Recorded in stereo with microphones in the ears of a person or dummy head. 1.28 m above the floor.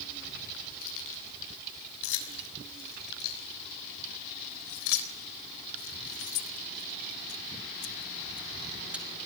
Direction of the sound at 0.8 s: 75° left (ahead or behind).